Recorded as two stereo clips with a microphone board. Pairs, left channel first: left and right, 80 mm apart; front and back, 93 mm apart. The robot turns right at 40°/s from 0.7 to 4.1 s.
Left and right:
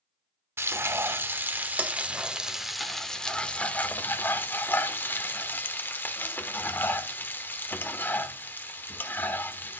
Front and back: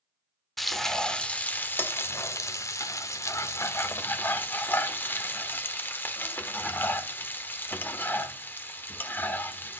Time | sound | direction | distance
0.6 | frying | 90° right | 1.0 m